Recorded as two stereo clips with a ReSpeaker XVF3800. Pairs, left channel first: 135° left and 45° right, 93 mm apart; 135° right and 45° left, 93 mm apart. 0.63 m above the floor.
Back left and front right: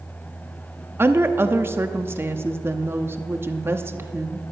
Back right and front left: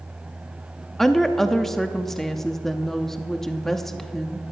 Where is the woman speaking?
55° right, 0.8 m.